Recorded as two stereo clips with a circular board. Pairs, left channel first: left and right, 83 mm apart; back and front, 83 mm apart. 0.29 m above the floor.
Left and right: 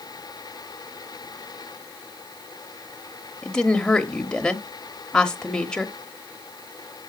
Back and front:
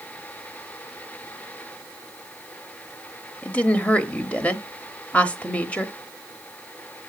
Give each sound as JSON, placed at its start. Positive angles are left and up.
{"t": 3.4, "sound": "a woman speaking", "azimuth_deg": 150, "distance_m": 1.1}